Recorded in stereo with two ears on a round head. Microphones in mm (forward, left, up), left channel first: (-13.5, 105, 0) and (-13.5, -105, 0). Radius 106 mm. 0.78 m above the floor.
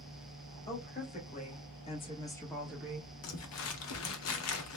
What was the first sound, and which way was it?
A woman speaking, 35° left (ahead or behind).